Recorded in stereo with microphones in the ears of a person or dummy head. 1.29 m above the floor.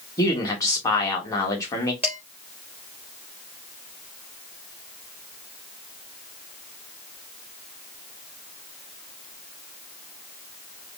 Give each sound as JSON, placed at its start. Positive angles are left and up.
{"t": 0.2, "sound": "a man speaking", "side_deg": 20, "distance_m": 1.6}
{"t": 2.0, "sound": "dishes clattering", "side_deg": -10, "distance_m": 3.0}